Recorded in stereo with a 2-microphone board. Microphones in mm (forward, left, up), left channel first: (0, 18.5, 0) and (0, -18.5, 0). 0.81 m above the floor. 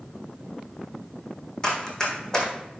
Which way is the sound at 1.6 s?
15° left (ahead or behind).